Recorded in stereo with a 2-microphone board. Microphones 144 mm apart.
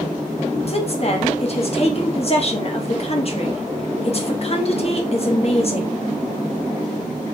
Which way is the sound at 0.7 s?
45° left (ahead or behind).